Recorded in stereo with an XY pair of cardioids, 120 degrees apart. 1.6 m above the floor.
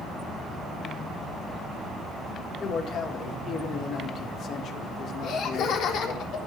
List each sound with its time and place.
2.6 s a man speaking: 55° left, 2.5 m
5.2 s laughter: 65° left, 4 m